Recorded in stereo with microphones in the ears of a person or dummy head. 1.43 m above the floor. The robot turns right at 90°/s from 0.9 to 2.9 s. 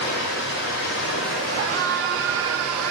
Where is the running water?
75° left, 2.5 m; by 2.9 s 105° right, 2.5 m.